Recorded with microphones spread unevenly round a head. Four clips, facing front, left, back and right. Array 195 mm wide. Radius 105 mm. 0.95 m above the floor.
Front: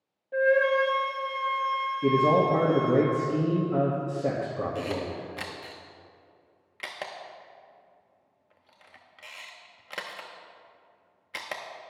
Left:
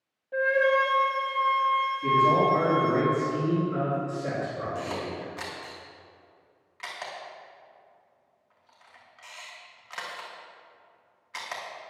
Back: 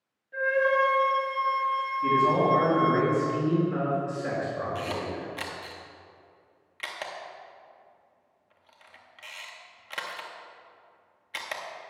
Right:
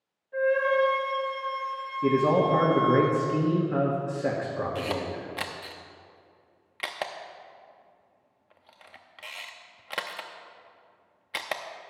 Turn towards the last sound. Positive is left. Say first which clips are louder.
# right 2 dB, front 1 dB
turn(degrees=-65)